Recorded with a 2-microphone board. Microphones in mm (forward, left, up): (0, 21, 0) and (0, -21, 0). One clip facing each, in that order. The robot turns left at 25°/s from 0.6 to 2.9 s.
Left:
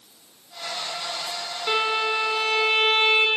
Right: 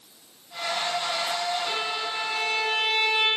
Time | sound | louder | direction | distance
1.7 | a violin | left 6 dB | 135° left | 1.5 m